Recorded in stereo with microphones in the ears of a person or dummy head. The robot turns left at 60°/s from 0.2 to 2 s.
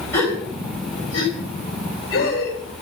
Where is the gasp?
15° left (ahead or behind), 6.5 m; by 2.5 s 60° left (ahead or behind), 6.5 m.